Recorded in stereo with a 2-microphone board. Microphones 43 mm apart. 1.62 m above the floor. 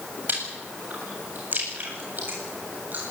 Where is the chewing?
40° right (ahead or behind), 8 m.